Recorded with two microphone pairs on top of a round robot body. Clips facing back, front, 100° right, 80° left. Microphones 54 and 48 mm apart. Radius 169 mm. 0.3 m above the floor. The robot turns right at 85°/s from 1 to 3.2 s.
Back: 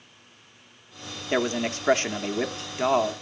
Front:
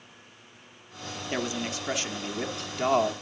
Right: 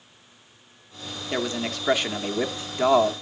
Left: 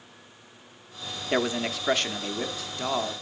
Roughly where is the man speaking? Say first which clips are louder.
Back 6 dB, left 1 dB; behind left.